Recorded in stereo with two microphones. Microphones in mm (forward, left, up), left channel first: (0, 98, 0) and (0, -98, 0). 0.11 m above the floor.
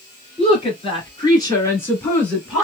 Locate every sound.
0.4 s a woman speaking: 30° left (ahead or behind), 2.0 m; by 2.6 s centre (ahead or behind), 1.6 m